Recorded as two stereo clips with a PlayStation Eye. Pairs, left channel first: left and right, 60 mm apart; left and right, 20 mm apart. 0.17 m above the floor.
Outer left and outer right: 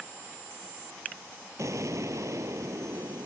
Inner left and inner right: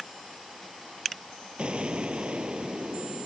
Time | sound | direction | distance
1.6 | an explosion | 60° right (ahead or behind) | ?